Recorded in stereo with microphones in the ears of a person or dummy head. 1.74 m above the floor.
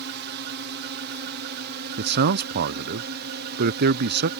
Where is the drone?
55° right (ahead or behind); by 4.4 s 50° right (ahead or behind).